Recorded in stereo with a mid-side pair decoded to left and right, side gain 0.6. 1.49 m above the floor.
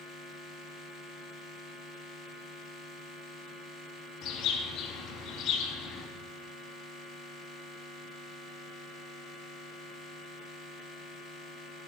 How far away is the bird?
About 4 m.